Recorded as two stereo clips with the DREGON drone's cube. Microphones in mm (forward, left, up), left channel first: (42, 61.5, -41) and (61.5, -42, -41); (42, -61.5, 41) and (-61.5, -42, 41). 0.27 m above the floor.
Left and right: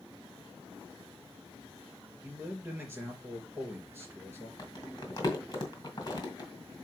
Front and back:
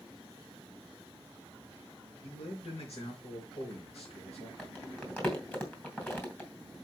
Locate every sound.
2.2 s a man speaking: 10° right, 3.5 m
4.6 s crumpling: 55° left, 2.5 m